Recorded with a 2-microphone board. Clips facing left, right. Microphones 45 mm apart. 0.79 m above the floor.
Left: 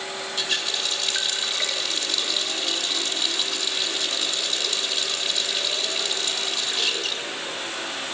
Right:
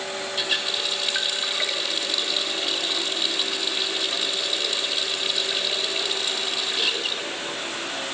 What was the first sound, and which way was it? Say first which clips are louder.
A running tap: even; 10° right (ahead or behind).